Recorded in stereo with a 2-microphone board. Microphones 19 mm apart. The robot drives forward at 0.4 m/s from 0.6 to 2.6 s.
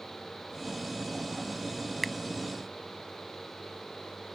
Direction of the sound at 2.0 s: 5° left (ahead or behind).